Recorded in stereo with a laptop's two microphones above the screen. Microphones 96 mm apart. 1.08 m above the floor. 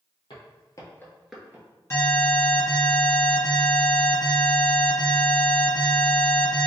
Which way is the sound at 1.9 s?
30° left (ahead or behind).